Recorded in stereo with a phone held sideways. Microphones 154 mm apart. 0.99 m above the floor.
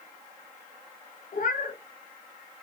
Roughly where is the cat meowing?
Left.